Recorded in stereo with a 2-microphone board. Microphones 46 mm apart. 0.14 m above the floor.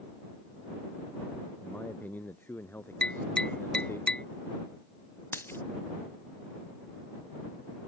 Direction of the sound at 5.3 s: 55° left (ahead or behind).